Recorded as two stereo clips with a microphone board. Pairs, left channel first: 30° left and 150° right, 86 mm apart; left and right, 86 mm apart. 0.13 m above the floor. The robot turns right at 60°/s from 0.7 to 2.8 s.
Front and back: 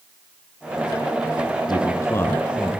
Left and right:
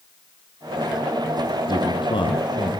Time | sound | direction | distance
1.7 | a man speaking | 65° left | 4 m